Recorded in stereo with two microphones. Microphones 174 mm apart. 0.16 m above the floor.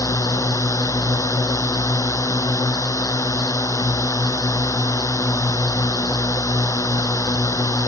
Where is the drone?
20° left (ahead or behind).